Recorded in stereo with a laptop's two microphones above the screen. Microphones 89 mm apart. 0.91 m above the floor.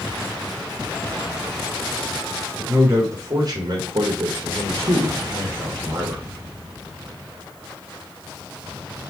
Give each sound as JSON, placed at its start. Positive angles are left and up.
{"t": 2.6, "sound": "a man speaking", "side_deg": -25, "distance_m": 1.0}